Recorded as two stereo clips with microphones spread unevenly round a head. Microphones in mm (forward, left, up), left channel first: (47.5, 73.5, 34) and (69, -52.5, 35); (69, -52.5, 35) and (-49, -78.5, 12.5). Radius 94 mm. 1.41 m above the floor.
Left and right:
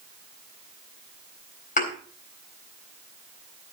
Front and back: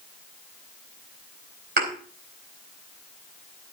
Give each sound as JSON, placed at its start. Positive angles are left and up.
{"t": 1.8, "sound": "a thud", "azimuth_deg": 150, "distance_m": 4.0}